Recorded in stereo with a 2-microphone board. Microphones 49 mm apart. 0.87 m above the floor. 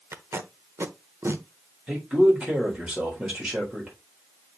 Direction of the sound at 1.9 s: 25° right (ahead or behind).